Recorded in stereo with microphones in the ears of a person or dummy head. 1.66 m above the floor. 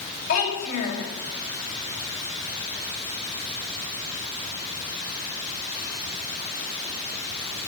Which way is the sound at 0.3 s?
50° left (ahead or behind).